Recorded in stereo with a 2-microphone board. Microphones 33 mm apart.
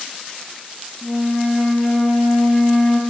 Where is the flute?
5° left (ahead or behind), 5 m.